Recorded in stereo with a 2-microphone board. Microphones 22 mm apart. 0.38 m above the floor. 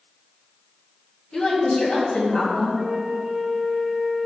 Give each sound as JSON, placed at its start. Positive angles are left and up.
{"t": 1.3, "sound": "a woman speaking", "side_deg": 65, "distance_m": 2.5}
{"t": 2.8, "sound": "a flute", "side_deg": -10, "distance_m": 1.4}